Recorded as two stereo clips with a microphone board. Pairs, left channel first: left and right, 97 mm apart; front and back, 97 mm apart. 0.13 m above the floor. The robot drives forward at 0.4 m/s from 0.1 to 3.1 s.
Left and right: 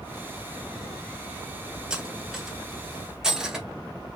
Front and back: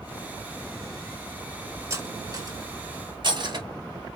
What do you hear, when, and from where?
1.9 s cutlery clinking: 165° right, 0.9 m; by 3.7 s 175° right, 1.2 m